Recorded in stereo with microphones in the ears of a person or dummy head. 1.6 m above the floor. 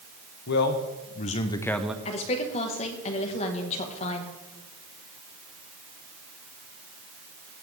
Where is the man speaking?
65° left (ahead or behind), 1.1 m; by 1.9 s 5° right (ahead or behind), 0.6 m.